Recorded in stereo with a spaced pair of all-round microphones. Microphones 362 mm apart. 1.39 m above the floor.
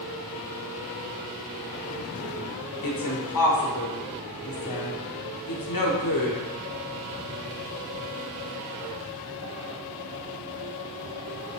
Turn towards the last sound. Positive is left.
turn(degrees=60)  # may be behind; listen again after turning